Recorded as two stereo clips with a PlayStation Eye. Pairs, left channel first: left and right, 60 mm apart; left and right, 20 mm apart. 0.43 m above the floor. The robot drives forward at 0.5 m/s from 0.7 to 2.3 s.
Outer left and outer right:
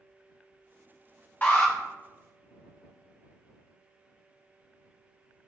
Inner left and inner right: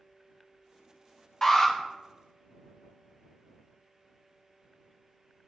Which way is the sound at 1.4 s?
30° left (ahead or behind).